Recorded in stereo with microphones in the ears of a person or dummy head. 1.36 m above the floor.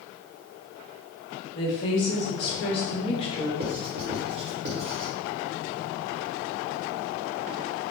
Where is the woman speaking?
35° left (ahead or behind), 0.9 m.